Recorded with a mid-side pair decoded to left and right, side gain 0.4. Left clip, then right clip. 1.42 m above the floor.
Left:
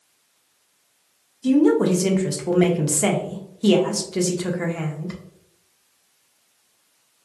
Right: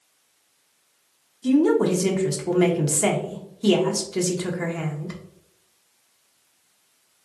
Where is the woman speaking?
10° left, 0.7 m.